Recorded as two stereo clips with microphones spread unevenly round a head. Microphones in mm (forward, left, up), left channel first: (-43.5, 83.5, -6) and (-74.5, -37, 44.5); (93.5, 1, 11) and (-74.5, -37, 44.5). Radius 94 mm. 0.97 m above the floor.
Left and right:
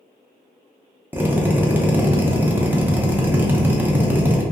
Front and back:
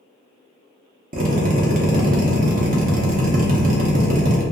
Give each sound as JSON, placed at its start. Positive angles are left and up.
{"t": 1.1, "sound": "a drill", "azimuth_deg": 160, "distance_m": 0.7}